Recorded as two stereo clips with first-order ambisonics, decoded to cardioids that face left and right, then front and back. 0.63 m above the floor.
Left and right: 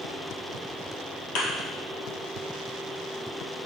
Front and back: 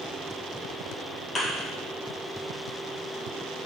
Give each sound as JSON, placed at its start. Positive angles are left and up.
{"t": 1.4, "sound": "a thud", "azimuth_deg": 70, "distance_m": 2.5}